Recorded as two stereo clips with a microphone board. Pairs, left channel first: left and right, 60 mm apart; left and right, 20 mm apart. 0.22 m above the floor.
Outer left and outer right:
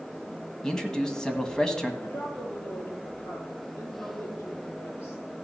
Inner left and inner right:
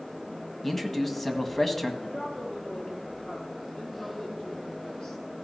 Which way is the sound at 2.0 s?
45° left (ahead or behind).